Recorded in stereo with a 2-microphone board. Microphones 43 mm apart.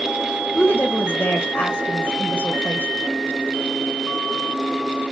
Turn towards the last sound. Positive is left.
turn(degrees=65)  # may be behind; listen again after turning